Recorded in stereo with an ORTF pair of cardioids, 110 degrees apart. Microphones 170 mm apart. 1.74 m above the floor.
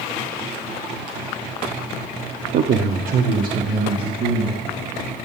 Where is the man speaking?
60° right, 0.9 m; by 4.7 s 55° right, 3.5 m.